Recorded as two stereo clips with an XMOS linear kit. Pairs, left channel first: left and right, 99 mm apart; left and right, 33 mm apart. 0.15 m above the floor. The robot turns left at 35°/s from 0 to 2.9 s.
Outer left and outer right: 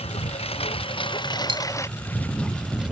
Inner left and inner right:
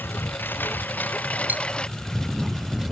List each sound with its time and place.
0.0 s a lawn mower: 85° left; by 2.9 s 10° right (ahead or behind)
1.5 s cutlery clinking: 60° right (ahead or behind)